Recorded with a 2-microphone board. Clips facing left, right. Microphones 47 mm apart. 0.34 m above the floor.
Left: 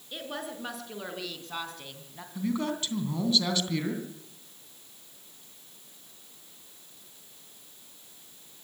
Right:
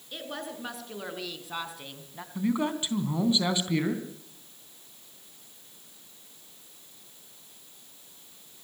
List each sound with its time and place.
0.1 s a woman speaking: 5° left (ahead or behind), 4.5 m; by 2.2 s 15° right (ahead or behind), 3 m
2.4 s a man speaking: 20° right (ahead or behind), 3 m